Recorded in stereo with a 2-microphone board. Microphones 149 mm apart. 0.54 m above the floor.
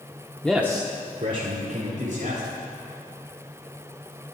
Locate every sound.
0.4 s a man speaking: 5° left (ahead or behind), 0.8 m; by 2.5 s 65° right (ahead or behind), 3 m